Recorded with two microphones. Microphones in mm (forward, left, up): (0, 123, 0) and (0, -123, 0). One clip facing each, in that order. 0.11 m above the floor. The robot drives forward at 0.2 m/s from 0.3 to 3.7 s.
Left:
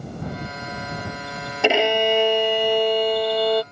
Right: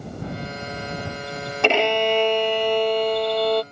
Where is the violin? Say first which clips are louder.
Left 1 dB; 10° left (ahead or behind); by 3.6 s 5° left (ahead or behind).